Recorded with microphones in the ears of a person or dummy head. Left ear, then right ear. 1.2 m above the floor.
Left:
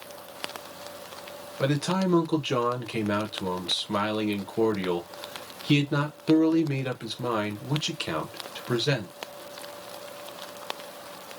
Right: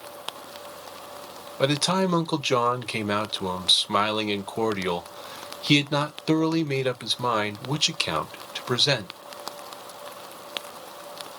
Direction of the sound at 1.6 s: 30° right (ahead or behind).